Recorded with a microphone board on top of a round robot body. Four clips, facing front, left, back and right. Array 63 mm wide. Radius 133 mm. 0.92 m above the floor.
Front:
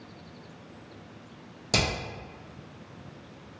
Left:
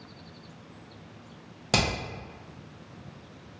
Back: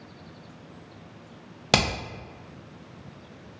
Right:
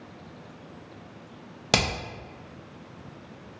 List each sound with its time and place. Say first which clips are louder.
1.7 s hammering: right 1 dB, back 5 dB; 155° right, 0.7 m